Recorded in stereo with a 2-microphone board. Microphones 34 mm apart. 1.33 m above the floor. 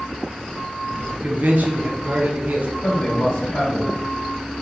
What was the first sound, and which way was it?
A man speaking, 55° right (ahead or behind).